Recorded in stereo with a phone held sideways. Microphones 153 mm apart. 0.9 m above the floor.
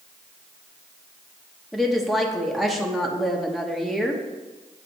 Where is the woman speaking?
Centre (ahead or behind), 1.1 m.